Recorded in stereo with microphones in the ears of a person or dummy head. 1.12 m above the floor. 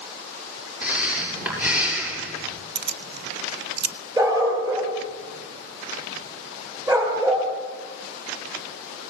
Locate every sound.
0.8 s breathing: 10° right (ahead or behind), 6 m
2.8 s keys jangling: 55° right (ahead or behind), 0.7 m
4.2 s a dog barking: 25° right (ahead or behind), 6.5 m